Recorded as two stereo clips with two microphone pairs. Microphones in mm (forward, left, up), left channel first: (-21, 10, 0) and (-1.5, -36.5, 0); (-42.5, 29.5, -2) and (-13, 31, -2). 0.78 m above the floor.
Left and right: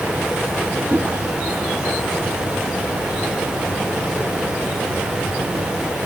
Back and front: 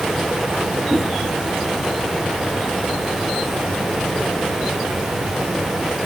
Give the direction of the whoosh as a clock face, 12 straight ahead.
3 o'clock.